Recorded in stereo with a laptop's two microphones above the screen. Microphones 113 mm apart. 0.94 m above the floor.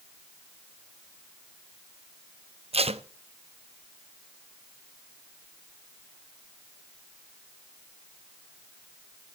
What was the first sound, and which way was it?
Tape being pulled, 65° right (ahead or behind).